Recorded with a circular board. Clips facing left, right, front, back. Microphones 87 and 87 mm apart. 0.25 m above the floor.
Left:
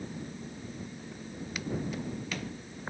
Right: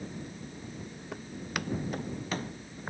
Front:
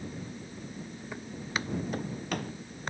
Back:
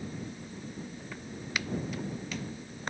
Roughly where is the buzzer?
No buzzer in this recording.